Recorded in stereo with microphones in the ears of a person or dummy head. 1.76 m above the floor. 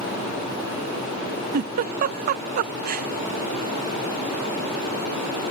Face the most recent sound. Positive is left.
turn(degrees=-55)  # may be behind; listen again after turning